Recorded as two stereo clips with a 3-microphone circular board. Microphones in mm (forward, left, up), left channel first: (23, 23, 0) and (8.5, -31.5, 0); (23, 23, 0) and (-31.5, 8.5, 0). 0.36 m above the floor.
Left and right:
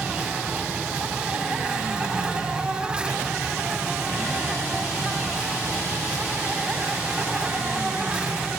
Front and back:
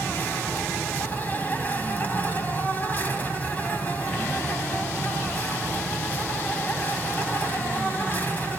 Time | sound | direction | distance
0.0 | an insect | 35° right | 4 m